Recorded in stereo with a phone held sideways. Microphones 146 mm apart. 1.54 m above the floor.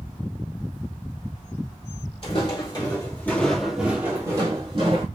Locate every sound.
2.2 s footsteps: 45° left (ahead or behind), 2 m; by 5.1 s 40° right (ahead or behind), 2 m